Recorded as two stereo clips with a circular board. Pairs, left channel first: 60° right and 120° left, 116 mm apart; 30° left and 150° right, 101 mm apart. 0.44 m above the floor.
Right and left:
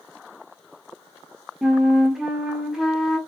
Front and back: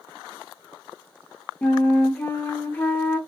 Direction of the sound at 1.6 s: 40° left.